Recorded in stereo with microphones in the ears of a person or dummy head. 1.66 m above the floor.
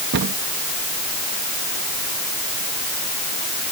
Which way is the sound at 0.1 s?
65° right (ahead or behind).